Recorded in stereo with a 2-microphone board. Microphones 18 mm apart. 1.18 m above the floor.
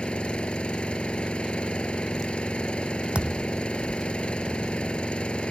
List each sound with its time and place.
0.0 s an engine running: 70° left (ahead or behind)
3.1 s a thud: 65° right (ahead or behind)